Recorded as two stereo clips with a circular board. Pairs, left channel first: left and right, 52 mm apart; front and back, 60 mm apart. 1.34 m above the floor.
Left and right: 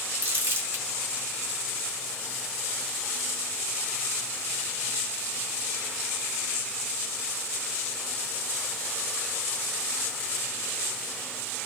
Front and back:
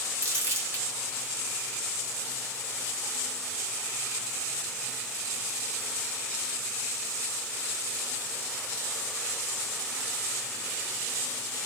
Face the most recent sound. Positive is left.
turn(degrees=-135)